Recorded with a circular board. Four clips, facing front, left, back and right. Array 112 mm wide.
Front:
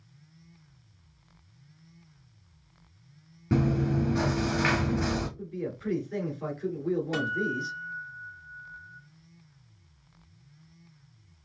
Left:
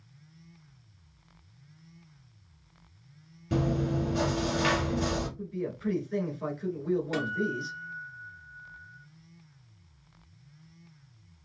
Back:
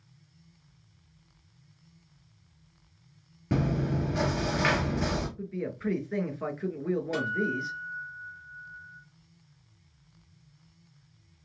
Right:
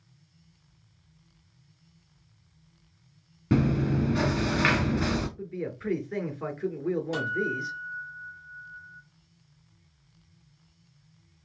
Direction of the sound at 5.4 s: 130° right.